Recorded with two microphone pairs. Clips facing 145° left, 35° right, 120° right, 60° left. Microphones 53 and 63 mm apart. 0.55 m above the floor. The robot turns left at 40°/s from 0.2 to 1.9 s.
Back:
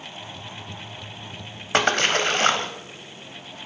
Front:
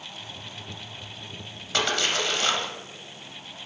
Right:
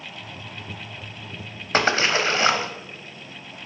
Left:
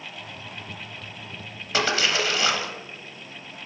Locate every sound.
1.7 s a splash: 165° right, 0.7 m; by 2.7 s 170° right, 0.7 m